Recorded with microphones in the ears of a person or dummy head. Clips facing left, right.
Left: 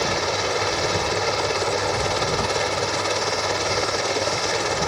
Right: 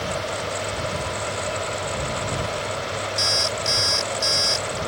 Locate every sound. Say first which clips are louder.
0.0 s a helicopter: left 4 dB; 75° left (ahead or behind)
3.2 s an alarm clock: left 3 dB; 80° right